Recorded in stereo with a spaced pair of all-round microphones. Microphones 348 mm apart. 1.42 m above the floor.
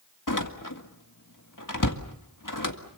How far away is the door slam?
About 1.9 m.